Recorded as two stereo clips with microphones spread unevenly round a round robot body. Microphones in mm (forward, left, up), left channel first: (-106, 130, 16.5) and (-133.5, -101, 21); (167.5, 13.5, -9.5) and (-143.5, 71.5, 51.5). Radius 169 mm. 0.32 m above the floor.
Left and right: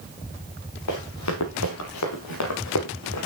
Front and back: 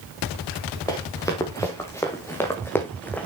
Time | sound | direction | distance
0.9 | running footsteps | 70° left | 3 m